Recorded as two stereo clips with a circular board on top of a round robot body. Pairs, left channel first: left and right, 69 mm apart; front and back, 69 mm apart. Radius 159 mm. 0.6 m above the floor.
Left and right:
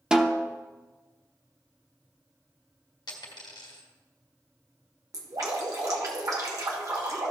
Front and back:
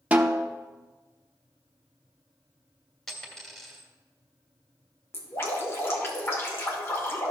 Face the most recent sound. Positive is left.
turn(degrees=-55)